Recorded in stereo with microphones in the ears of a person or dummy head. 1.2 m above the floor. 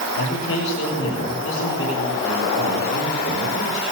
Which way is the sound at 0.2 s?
70° left (ahead or behind).